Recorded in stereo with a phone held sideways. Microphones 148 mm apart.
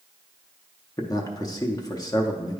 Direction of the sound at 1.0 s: 25° left (ahead or behind).